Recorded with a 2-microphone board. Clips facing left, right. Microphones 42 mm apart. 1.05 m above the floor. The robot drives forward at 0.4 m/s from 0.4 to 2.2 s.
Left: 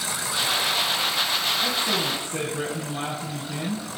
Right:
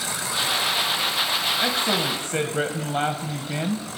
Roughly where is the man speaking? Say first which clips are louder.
Right 2 dB; right.